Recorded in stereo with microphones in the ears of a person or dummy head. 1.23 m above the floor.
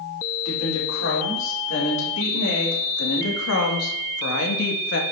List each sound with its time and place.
0.5 s a woman speaking: 60° left (ahead or behind), 4 m; by 5.0 s 65° left (ahead or behind), 1.9 m